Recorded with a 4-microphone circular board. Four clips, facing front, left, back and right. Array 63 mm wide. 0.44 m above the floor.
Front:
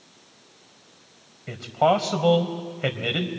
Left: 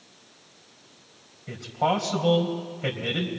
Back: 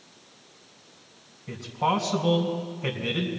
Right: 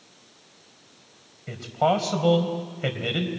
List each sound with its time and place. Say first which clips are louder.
1.5 s a man speaking: right 2 dB, front 5 dB; 20° right, 2.5 m